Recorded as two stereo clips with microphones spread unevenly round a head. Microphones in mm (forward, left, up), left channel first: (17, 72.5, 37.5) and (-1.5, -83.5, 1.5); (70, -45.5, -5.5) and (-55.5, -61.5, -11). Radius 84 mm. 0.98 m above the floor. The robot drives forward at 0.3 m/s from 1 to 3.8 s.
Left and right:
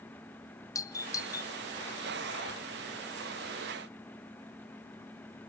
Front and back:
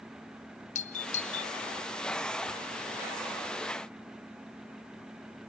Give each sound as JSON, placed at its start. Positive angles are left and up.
{"t": 0.8, "sound": "a doorbell", "azimuth_deg": 5, "distance_m": 1.2}